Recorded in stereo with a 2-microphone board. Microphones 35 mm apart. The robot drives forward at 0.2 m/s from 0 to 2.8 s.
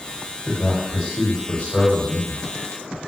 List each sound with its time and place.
0.5 s a man speaking: 35° left (ahead or behind), 1.7 m; by 2.4 s 30° left (ahead or behind), 1.9 m